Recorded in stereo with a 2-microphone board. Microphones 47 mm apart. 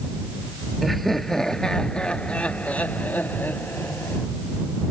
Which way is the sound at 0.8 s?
Centre (ahead or behind).